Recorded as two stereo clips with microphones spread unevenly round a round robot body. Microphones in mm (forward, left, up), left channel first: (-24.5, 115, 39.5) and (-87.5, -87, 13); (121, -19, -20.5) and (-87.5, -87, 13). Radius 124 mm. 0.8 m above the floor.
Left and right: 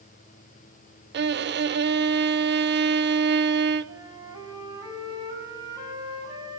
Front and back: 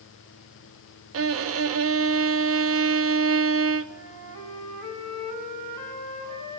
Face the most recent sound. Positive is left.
turn(degrees=180)